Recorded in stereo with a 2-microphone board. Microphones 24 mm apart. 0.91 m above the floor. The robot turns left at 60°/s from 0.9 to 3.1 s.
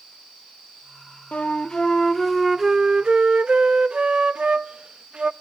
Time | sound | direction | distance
1.3 | a flute | 55° left | 0.6 m